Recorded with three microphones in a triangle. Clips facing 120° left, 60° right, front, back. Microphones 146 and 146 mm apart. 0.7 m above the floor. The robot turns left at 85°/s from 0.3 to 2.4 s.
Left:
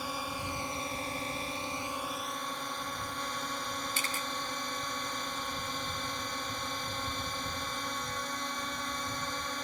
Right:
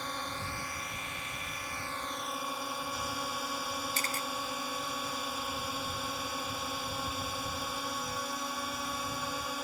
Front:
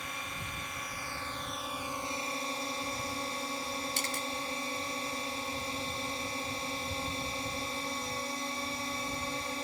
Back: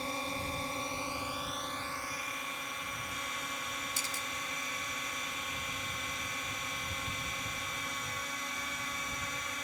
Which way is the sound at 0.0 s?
165° right.